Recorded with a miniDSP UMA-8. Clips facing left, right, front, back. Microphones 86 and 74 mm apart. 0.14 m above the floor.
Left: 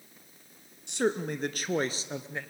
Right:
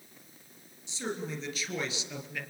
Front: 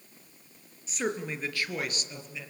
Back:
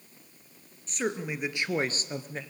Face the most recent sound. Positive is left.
turn(degrees=145)